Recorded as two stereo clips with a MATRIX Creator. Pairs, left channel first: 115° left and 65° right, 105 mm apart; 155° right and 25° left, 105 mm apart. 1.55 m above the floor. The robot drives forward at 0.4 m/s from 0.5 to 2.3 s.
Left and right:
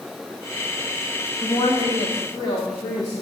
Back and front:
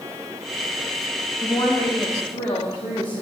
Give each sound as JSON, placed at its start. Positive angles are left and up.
{"t": 1.4, "sound": "a woman speaking", "azimuth_deg": 160, "distance_m": 0.7}